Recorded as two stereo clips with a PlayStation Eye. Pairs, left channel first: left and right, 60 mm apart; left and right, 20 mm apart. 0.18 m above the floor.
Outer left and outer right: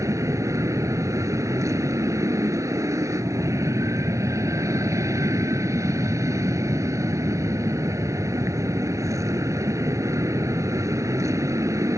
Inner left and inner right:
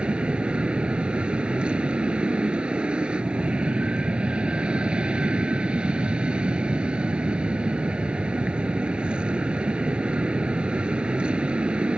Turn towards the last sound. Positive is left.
turn(degrees=-60)  # may be behind; listen again after turning